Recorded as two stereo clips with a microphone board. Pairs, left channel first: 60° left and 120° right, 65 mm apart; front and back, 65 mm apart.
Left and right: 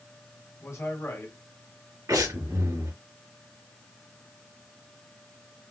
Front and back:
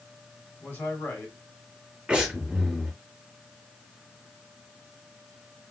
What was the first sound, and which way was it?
A man speaking, 50° left.